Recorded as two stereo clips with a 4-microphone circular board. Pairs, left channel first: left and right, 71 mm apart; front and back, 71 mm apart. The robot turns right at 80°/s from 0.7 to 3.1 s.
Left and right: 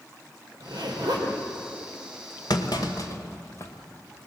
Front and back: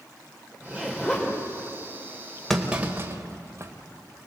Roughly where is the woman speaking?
I don't hear a woman speaking.